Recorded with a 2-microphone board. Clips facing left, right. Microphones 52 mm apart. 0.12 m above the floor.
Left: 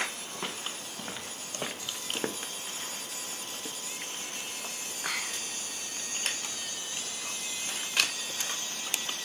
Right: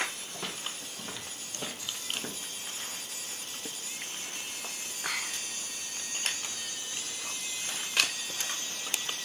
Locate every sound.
0.3 s footsteps: 15° left (ahead or behind), 1.7 m; by 2.5 s 55° left (ahead or behind), 0.6 m